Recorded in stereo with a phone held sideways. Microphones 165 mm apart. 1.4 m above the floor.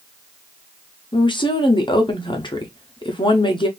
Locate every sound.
1.1 s a woman speaking: 30° left (ahead or behind), 0.7 m